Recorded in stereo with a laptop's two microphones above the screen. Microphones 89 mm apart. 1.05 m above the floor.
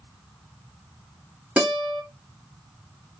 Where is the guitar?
20° right (ahead or behind), 1.9 m.